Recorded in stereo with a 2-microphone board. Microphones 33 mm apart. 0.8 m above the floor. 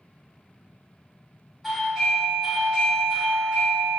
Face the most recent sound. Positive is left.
turn(degrees=-5)  # may be behind; listen again after turning